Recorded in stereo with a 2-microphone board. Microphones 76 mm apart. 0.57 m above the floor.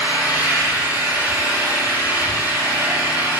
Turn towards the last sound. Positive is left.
turn(degrees=-25)  # may be behind; listen again after turning